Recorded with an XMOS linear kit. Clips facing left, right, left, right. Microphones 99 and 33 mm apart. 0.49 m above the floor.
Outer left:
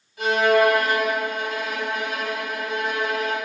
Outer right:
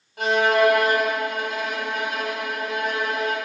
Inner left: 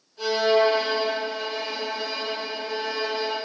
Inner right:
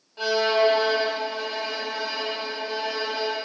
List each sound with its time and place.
0.2 s a violin: 55° right (ahead or behind), 2 m